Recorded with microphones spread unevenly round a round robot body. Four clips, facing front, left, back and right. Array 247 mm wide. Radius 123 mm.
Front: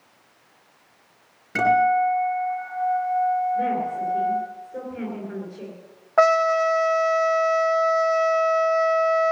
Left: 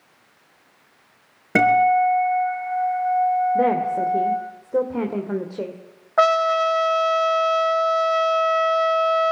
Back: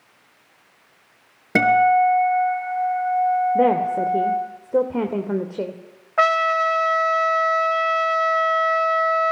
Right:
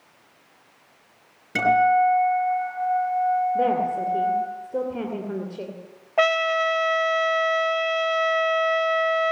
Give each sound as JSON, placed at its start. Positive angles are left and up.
{"t": 1.6, "sound": "a guitar", "azimuth_deg": 140, "distance_m": 6.0}
{"t": 3.5, "sound": "a woman speaking", "azimuth_deg": 155, "distance_m": 2.5}
{"t": 6.2, "sound": "a trumpet", "azimuth_deg": 20, "distance_m": 1.0}